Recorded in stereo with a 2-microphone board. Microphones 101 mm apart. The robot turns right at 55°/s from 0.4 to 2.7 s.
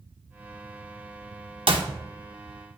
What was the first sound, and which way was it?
A clap, 60° right (ahead or behind).